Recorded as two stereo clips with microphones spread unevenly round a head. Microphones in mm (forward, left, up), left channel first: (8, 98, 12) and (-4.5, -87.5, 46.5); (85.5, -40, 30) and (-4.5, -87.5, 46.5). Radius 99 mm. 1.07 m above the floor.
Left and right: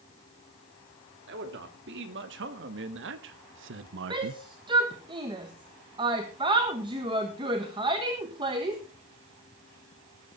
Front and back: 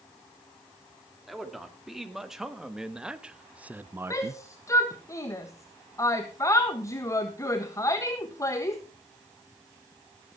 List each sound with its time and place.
1.3 s a man speaking: 60° right, 3 m; by 4.4 s 100° right, 0.5 m
4.1 s a shout: 25° right, 1.5 m